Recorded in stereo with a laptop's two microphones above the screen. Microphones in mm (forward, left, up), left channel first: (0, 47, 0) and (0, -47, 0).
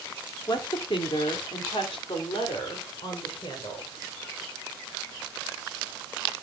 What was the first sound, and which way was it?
A woman speaking, 55° left (ahead or behind).